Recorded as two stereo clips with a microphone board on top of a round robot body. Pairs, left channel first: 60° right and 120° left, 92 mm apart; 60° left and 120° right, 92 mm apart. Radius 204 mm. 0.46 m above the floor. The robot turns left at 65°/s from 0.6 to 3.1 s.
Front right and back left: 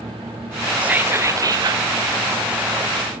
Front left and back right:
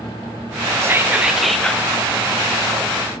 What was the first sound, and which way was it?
Whispering, 165° right.